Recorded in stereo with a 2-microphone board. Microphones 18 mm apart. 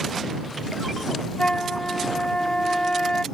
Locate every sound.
1.4 s a flute: 55° left (ahead or behind)